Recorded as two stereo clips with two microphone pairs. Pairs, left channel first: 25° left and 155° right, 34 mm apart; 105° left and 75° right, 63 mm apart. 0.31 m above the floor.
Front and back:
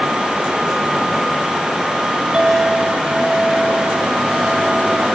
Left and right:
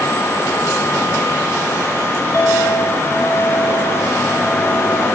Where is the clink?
140° left, 2.5 m.